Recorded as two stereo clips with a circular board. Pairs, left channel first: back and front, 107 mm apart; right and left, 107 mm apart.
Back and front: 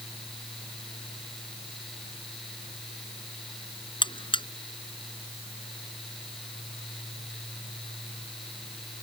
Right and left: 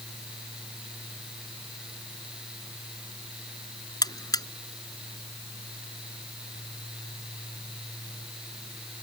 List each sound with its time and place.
4.0 s a buzzer: 140° right